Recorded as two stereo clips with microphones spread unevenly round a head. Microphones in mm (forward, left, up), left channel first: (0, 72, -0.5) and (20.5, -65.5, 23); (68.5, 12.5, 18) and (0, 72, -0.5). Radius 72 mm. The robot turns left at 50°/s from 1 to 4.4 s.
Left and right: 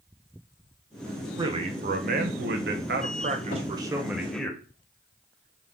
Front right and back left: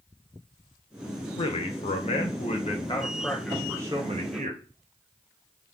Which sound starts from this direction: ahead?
A man speaking, at 1.4 s.